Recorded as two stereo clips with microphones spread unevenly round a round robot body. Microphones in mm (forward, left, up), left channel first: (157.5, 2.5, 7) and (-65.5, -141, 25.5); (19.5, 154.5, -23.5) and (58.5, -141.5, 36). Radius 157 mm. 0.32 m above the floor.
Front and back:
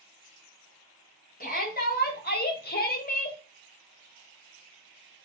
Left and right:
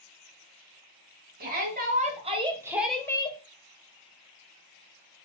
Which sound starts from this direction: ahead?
A shout, at 1.4 s.